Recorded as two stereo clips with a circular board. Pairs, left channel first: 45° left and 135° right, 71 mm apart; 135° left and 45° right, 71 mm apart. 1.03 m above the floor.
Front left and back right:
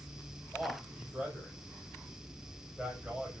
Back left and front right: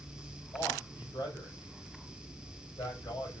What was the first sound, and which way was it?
A man speaking, 150° left.